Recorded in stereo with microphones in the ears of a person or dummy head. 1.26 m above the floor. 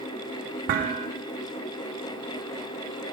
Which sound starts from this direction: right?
Dishes clattering, at 0.7 s.